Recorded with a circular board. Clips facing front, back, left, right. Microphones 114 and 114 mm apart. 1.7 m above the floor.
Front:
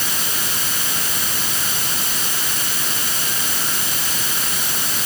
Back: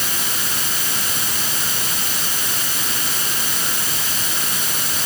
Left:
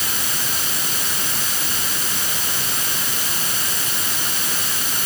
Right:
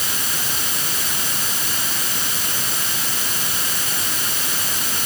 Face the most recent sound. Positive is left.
No sound to turn to.